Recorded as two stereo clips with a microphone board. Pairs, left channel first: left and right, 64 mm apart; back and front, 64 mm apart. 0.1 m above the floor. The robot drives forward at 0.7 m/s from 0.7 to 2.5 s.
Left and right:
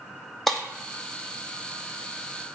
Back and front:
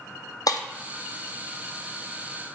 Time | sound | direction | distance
0.5 | breaking glass | 175° left | 0.9 m